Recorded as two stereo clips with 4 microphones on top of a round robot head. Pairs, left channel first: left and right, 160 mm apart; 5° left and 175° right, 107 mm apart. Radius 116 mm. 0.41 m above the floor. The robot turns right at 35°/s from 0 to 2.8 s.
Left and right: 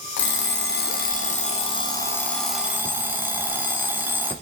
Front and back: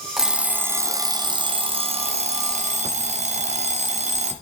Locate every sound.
0.2 s an alarm clock: 100° left, 1.5 m; by 4.3 s 170° right, 1.5 m